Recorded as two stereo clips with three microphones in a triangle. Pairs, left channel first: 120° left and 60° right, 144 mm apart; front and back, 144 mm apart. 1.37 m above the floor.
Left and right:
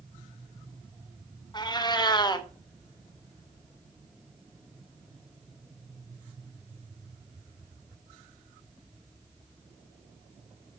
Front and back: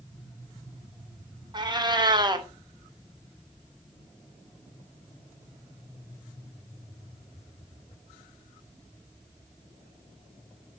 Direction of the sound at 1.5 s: 150° left.